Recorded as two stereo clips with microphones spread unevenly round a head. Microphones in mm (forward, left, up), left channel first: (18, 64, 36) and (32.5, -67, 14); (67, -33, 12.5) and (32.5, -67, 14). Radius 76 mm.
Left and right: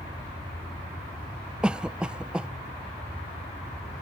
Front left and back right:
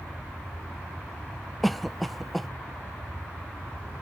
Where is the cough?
35° right.